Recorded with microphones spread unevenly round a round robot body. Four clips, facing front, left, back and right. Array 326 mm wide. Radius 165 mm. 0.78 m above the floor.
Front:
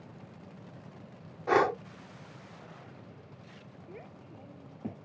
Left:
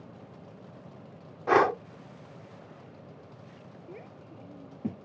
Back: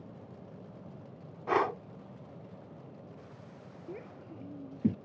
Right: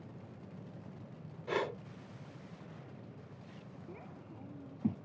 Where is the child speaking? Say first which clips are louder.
Left 5 dB, back 4 dB; 165° right.